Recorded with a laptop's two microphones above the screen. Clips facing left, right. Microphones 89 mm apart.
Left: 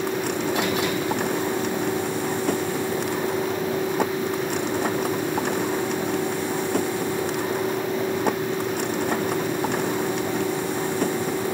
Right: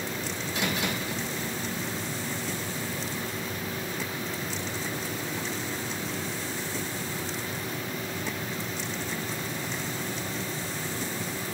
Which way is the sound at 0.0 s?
65° left (ahead or behind).